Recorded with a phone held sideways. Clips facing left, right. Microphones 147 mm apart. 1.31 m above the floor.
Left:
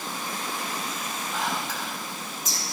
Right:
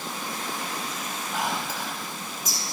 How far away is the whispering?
About 4 m.